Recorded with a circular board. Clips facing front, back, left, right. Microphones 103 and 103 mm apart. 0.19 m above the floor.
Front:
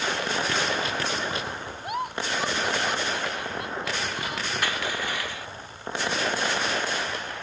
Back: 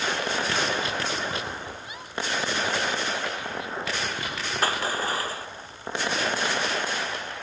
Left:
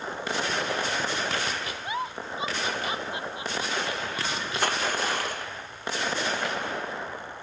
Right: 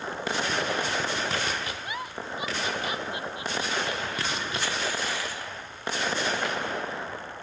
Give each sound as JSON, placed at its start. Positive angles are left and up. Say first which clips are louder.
{"t": 1.8, "sound": "a giggle", "louder": "front 6 dB, left 3 dB", "azimuth_deg": 25}
{"t": 4.6, "sound": "crushing", "louder": "back 6 dB, left 7 dB", "azimuth_deg": 130}